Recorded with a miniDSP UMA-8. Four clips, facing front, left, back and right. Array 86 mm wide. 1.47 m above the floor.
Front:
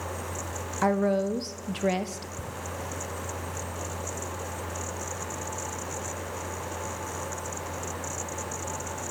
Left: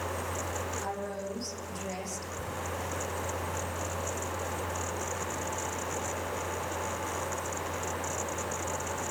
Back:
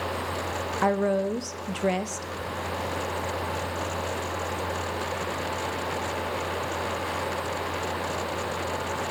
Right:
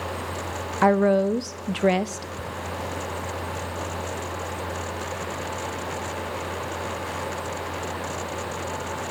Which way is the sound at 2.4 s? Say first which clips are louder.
Right 4 dB, back 5 dB; 40° right.